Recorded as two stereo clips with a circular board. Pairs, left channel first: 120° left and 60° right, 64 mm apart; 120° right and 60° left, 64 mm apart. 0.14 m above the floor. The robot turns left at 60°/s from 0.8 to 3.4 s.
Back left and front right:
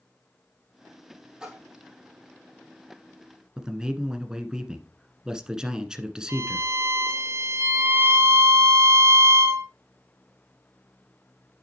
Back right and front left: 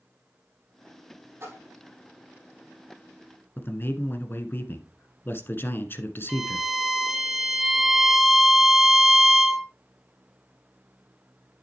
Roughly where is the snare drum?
I don't hear a snare drum.